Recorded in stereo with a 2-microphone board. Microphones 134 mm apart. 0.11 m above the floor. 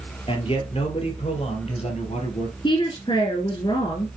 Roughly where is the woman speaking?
Left.